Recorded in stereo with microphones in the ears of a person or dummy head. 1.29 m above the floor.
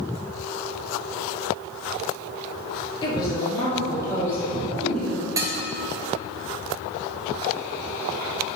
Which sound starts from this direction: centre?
Dishes clattering, at 5.4 s.